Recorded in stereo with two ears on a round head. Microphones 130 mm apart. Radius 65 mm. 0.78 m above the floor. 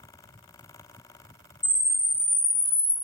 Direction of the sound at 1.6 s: 35° left (ahead or behind).